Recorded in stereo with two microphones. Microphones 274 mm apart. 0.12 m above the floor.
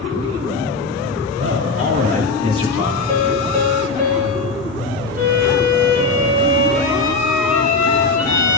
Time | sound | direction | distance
1.4 | a man speaking | 45° right (ahead or behind) | 2.5 m
3.1 | a piano | 20° right (ahead or behind) | 2.5 m
5.2 | a violin | 35° right (ahead or behind) | 6.5 m